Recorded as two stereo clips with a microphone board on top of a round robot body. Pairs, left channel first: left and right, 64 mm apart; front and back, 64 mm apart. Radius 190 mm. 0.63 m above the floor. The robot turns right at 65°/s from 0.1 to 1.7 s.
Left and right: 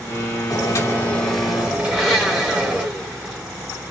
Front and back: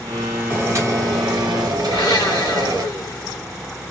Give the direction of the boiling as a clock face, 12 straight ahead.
8 o'clock.